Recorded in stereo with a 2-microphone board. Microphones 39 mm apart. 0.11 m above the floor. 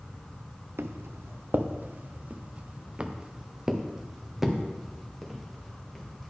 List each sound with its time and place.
0.8 s footsteps: 75° right (ahead or behind), 1.1 m; by 6.3 s 5° left (ahead or behind), 2.5 m